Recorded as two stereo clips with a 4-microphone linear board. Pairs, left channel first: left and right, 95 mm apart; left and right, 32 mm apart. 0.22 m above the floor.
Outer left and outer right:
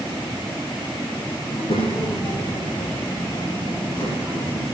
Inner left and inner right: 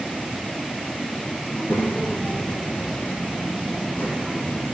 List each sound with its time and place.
1.5 s a child speaking: 75° left (ahead or behind), 5.5 m; by 4.6 s 50° left (ahead or behind), 6 m